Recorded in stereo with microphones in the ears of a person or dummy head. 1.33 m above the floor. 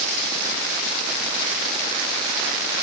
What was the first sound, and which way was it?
Only background noise.